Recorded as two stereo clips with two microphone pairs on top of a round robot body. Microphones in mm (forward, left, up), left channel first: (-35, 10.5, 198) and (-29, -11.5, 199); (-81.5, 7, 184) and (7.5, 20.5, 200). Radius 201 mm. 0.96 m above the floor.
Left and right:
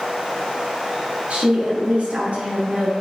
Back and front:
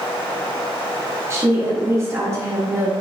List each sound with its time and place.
1.3 s a woman speaking: 50° right, 2.5 m